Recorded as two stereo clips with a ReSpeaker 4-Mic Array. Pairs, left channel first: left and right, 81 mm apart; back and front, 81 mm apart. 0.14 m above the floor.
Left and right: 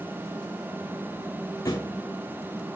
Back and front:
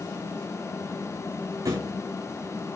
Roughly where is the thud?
Ahead left.